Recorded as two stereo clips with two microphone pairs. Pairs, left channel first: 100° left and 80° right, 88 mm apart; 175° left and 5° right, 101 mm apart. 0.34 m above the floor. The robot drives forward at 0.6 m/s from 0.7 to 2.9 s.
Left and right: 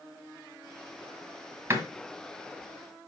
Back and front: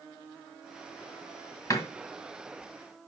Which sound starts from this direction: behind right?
A door slam, at 1.7 s.